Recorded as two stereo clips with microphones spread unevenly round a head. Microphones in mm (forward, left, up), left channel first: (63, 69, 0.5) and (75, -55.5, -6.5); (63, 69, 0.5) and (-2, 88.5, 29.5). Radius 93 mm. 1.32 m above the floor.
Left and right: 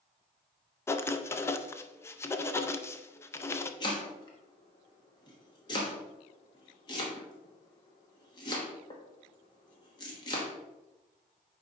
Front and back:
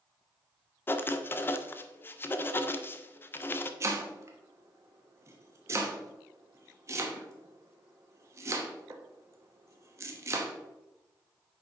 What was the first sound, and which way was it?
Writing, 60° left.